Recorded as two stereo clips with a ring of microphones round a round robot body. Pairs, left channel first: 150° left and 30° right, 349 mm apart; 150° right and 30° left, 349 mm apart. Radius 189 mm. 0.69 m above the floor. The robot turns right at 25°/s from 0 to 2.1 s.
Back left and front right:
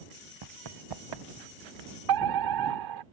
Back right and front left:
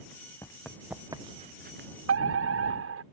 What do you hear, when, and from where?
0.4 s running footsteps: 70° right; by 1.9 s 30° right
2.1 s a fire alarm: 20° right